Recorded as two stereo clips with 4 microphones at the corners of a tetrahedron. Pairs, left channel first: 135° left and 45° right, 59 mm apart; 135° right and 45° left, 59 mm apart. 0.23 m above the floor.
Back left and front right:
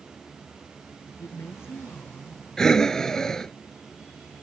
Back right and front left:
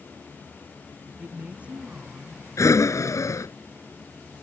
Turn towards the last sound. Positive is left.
turn(degrees=-145)